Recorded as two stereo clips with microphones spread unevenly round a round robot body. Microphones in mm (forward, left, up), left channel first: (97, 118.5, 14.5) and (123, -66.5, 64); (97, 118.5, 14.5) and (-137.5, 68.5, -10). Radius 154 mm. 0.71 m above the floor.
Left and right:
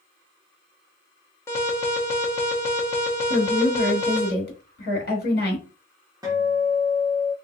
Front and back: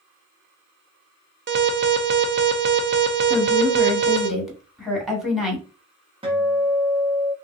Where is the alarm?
165° left, 0.5 m.